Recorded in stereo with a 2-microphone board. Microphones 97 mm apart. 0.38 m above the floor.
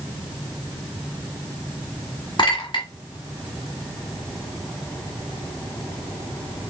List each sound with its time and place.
2.4 s a clink: 50° left (ahead or behind), 2 m